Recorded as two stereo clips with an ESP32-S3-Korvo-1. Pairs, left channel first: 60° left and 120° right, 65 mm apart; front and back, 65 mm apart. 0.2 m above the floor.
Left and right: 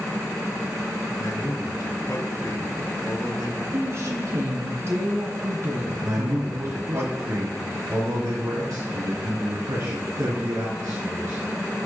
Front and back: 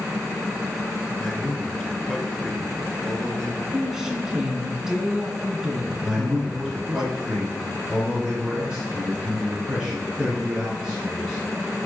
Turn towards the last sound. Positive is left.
turn(degrees=-105)